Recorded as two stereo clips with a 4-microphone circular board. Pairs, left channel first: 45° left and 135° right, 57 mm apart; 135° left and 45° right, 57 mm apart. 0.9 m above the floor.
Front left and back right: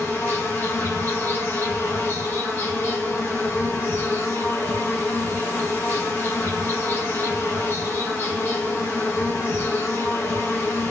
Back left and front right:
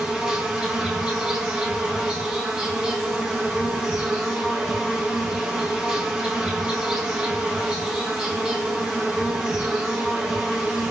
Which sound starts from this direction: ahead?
An insect, at 0.0 s.